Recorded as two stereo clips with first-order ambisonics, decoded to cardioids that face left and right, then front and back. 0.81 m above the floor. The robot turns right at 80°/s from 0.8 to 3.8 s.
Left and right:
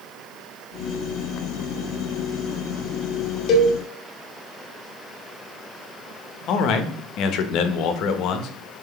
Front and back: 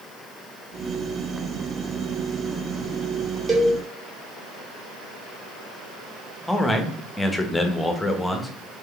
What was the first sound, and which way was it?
A cowbell, 115° left.